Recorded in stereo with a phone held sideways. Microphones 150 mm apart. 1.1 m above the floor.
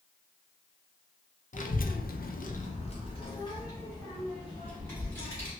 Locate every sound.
1.5 s a child speaking: 55° left (ahead or behind), 0.6 m; by 5.5 s 10° left (ahead or behind), 2.0 m